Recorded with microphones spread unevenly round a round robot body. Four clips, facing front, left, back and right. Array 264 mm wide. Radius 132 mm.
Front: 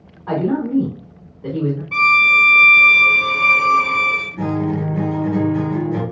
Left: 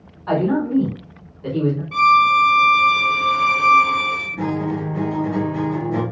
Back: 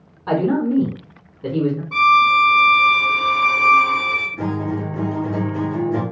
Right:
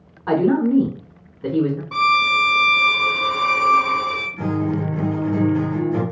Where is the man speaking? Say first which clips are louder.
Right 2 dB, back 1 dB; 120° right, 1.2 m.